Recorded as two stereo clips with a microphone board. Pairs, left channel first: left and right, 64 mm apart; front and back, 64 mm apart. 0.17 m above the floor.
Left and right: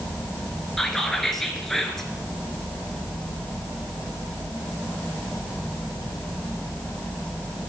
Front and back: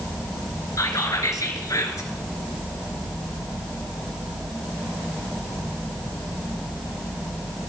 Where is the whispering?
5° left, 2.5 m.